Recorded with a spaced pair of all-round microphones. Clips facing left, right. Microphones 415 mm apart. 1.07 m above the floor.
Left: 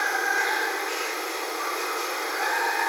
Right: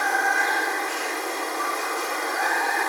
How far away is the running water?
About 2.5 m.